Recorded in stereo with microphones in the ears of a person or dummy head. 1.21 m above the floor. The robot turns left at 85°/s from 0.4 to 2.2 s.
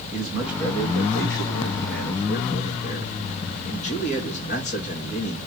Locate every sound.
0.1 s a man speaking: 160° right, 2.5 m; by 5.4 s 45° left, 2.5 m